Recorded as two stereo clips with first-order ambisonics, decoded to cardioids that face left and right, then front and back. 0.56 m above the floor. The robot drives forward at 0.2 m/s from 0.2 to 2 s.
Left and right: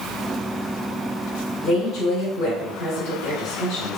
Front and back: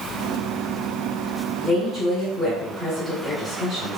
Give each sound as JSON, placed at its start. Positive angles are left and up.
{"t": 1.6, "sound": "a woman speaking", "azimuth_deg": 80, "distance_m": 0.9}